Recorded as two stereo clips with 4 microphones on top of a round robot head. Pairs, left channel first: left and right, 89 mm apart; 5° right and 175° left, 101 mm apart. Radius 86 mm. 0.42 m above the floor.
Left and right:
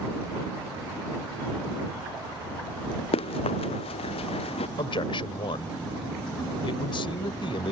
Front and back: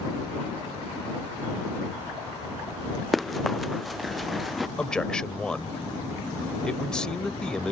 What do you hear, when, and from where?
3.1 s running footsteps: 85° left
4.8 s a man speaking: 75° left